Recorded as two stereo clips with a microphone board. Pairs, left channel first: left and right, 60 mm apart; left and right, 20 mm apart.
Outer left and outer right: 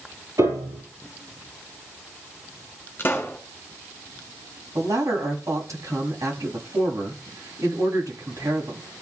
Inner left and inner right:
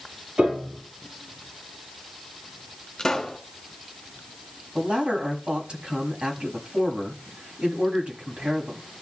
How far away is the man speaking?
About 5 m.